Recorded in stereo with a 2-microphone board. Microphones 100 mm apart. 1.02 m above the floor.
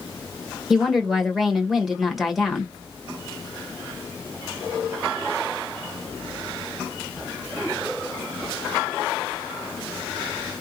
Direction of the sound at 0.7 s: Centre (ahead or behind).